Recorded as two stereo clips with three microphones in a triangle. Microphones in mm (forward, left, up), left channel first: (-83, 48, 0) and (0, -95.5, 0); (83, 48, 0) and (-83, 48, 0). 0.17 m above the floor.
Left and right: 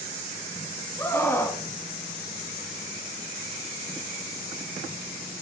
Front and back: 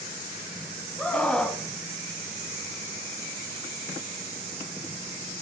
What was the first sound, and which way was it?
A scream, 75° left.